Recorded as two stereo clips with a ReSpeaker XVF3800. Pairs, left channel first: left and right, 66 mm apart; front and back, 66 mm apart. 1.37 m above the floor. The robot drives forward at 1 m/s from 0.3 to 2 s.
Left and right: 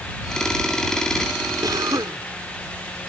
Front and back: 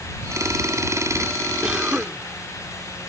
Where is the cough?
100° right; by 2.2 s 105° right.